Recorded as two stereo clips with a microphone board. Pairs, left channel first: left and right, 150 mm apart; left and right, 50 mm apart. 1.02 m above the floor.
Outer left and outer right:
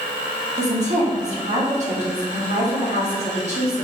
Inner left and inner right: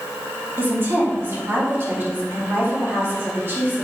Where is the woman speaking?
50° right (ahead or behind), 2.5 m.